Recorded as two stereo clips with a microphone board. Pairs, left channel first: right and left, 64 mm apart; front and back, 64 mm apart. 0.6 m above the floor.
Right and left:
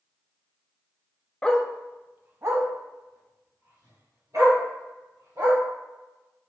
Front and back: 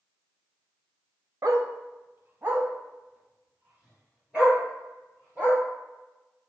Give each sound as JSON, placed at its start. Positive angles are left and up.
{"t": 1.4, "sound": "a dog barking", "azimuth_deg": -160, "distance_m": 0.6}